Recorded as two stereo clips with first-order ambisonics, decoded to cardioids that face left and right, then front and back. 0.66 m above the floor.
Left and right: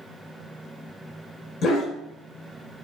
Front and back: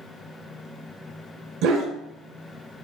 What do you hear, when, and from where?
1.6 s a dog barking: 145° left, 0.7 m